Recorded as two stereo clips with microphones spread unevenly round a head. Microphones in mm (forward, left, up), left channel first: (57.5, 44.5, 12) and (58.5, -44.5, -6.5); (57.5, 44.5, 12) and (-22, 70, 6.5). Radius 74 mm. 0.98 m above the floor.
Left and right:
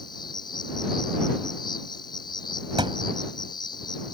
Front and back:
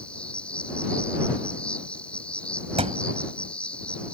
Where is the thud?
155° right.